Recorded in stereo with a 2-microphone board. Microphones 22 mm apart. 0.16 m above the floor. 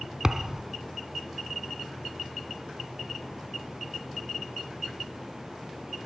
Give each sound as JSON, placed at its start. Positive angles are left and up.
{"t": 0.2, "sound": "a thud", "side_deg": -30, "distance_m": 0.7}